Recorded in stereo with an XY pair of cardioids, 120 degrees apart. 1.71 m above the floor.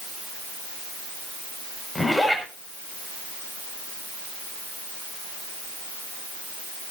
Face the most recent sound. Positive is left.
turn(degrees=5)